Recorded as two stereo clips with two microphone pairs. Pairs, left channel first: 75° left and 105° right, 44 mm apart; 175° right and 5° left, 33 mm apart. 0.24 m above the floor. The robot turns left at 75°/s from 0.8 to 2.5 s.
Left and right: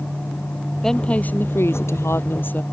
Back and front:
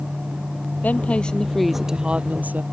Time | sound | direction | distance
0.8 | a woman speaking | 155° left | ?